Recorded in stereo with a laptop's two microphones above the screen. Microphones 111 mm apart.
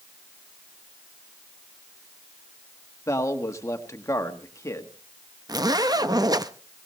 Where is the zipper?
35° right (ahead or behind), 0.6 m.